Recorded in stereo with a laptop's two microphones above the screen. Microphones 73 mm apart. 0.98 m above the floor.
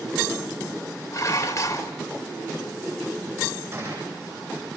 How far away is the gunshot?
About 8.5 m.